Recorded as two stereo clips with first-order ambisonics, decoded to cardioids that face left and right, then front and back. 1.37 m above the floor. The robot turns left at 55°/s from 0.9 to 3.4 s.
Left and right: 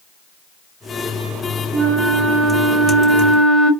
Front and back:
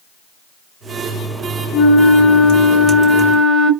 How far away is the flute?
About 0.8 m.